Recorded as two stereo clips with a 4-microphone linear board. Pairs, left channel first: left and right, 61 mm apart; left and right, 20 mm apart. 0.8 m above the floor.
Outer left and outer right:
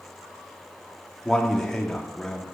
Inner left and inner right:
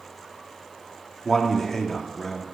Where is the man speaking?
10° left (ahead or behind), 1.5 m.